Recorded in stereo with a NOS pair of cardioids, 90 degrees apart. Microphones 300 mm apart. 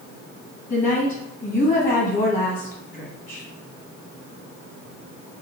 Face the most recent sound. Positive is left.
turn(degrees=30)